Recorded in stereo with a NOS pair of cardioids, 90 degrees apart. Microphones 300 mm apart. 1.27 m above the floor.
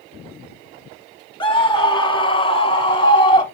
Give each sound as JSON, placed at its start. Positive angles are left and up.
{"t": 1.4, "sound": "a scream", "azimuth_deg": 15, "distance_m": 2.5}